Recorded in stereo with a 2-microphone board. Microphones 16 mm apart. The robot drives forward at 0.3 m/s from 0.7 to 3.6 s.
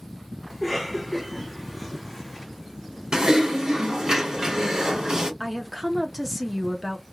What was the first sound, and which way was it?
A cough, 10° right (ahead or behind).